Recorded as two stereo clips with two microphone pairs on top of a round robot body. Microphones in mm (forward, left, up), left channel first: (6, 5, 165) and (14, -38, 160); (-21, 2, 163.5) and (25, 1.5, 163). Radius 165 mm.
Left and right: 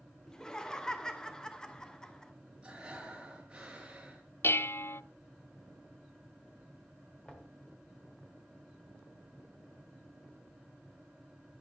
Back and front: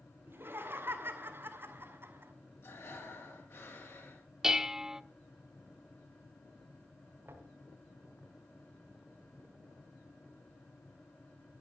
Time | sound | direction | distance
0.3 | laughter | 25° left | 2.5 m
2.6 | breathing | 150° right | 4 m
4.4 | dishes clattering | 75° left | 0.7 m
7.2 | knocking | 35° left | 3 m